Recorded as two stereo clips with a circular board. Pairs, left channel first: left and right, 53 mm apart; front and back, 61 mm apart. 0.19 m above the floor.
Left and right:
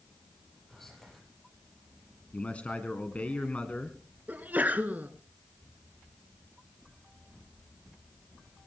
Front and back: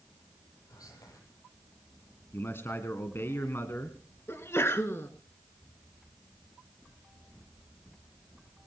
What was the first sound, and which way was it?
Whispering, 5° left.